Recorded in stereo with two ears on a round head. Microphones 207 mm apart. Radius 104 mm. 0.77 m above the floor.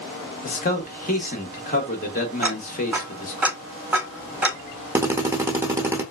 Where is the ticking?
5° right (ahead or behind), 1.0 m.